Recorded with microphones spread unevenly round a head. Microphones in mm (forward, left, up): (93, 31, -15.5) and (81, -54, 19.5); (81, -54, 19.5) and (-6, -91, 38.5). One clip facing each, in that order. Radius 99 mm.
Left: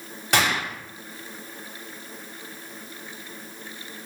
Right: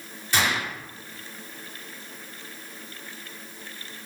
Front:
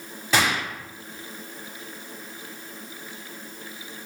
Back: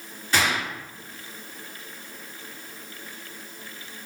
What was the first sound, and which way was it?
A gunshot, 55° left.